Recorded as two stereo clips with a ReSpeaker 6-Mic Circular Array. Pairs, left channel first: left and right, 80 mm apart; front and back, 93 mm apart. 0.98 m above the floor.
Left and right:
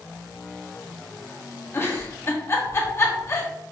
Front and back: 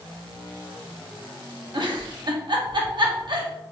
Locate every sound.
1.7 s a giggle: 145° left, 0.8 m